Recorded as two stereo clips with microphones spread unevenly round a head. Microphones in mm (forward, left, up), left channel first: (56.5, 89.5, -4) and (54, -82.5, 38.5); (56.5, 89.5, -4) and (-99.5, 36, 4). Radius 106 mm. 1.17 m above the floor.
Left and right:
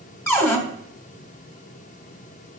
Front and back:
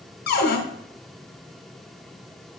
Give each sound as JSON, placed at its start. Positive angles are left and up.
{"t": 0.3, "sound": "a cupboard door", "azimuth_deg": 5, "distance_m": 1.2}